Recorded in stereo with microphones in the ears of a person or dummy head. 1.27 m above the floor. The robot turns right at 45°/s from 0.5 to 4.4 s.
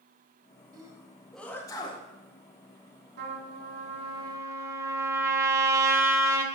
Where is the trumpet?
70° right, 1.8 m; by 6.5 s 15° right, 1.8 m.